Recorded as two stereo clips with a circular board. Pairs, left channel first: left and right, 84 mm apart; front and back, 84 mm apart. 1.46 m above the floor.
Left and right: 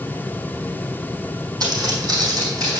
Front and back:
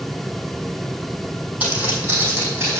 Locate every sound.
1.6 s footsteps: 115° right, 2.5 m; by 2.8 s 130° right, 3 m